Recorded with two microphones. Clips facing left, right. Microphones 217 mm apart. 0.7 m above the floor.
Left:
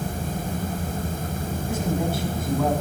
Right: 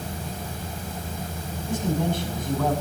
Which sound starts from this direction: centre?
A man speaking, at 1.7 s.